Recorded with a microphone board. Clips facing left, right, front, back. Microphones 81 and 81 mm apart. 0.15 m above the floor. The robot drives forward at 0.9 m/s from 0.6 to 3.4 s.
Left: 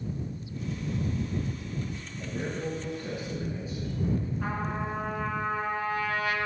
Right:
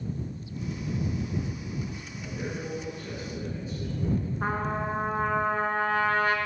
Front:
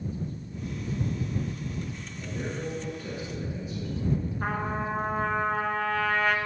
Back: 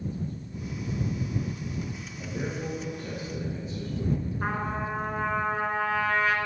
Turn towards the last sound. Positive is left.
turn(degrees=-95)